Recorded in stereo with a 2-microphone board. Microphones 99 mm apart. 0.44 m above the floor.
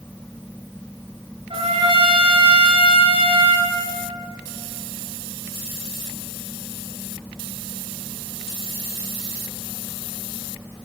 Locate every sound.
1.5 s a trumpet: 70° right (ahead or behind), 1.2 m